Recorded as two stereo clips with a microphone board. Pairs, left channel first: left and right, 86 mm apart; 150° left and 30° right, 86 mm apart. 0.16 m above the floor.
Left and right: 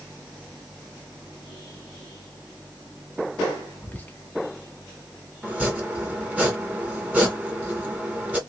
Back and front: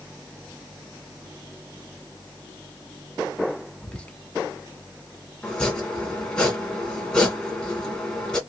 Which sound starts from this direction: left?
Whispering, at 3.8 s.